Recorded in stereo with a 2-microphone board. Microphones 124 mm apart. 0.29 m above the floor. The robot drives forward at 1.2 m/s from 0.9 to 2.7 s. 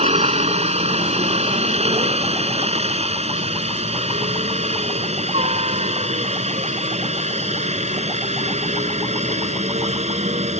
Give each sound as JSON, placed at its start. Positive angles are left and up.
{"t": 0.0, "sound": "a helicopter", "side_deg": -60}